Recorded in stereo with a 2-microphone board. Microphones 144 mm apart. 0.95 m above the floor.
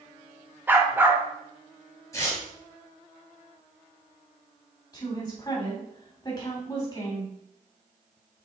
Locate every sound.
0.7 s a dog barking: 15° right (ahead or behind), 1.0 m
2.1 s tearing paper: 25° left (ahead or behind), 3 m
4.9 s a woman speaking: 30° left (ahead or behind), 3.5 m